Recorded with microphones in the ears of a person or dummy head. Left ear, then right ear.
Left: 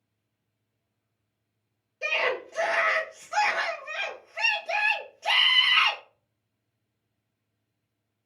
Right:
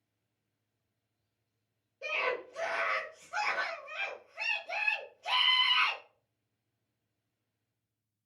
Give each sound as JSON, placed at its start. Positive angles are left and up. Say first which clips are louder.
{"t": 2.0, "sound": "a scream", "louder": "left 6 dB", "side_deg": 70, "distance_m": 0.8}